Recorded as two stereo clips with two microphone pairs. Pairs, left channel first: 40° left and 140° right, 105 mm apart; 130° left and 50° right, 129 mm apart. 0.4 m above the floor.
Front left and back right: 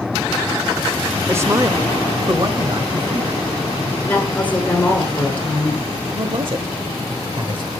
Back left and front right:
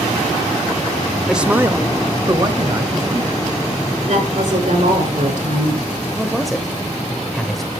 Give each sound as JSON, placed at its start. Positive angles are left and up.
{"t": 1.3, "sound": "a man speaking", "azimuth_deg": -125, "distance_m": 0.8}
{"t": 4.0, "sound": "a woman speaking", "azimuth_deg": -35, "distance_m": 5.5}
{"t": 6.1, "sound": "a man speaking", "azimuth_deg": -140, "distance_m": 1.1}